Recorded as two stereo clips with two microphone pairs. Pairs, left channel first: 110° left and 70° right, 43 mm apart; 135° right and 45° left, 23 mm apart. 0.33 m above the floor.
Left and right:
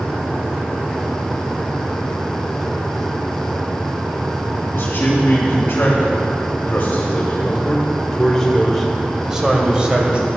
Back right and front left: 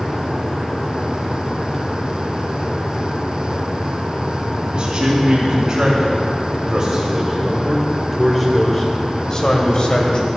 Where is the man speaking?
80° left, 3 m; by 10.3 s 125° right, 1.9 m.